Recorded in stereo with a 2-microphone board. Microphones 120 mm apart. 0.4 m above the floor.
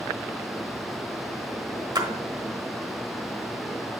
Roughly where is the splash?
Right.